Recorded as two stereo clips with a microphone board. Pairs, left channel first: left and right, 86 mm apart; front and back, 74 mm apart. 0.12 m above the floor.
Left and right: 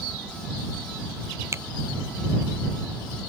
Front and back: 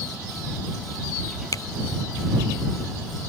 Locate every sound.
1.5 s a finger snap: 35° right